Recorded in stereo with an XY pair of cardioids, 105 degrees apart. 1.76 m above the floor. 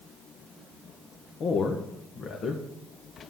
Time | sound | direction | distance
1.4 | a man speaking | 55° left | 1.7 m